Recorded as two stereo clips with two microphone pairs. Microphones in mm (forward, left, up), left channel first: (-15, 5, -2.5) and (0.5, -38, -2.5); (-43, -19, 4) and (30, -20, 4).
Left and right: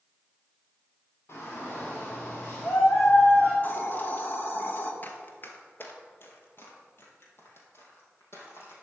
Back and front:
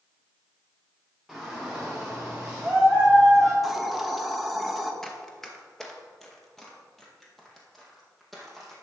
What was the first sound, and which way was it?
A shout, 85° left.